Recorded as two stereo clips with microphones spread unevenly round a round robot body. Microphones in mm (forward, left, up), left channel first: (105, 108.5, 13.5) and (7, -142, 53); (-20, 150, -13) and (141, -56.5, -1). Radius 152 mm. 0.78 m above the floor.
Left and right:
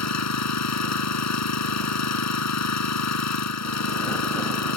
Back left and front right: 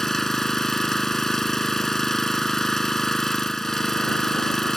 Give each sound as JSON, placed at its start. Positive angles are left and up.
{"t": 0.0, "sound": "an engine running", "azimuth_deg": 40}